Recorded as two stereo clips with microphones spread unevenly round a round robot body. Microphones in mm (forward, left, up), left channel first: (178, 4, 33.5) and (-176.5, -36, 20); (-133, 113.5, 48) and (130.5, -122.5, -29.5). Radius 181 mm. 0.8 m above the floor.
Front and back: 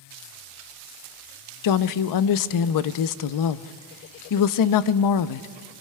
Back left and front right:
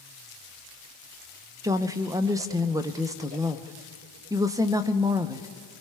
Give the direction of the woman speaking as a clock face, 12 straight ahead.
11 o'clock.